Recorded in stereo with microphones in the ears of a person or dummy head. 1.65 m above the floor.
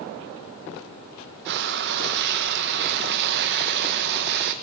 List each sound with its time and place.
1.4 s frying: 50° right (ahead or behind), 1.0 m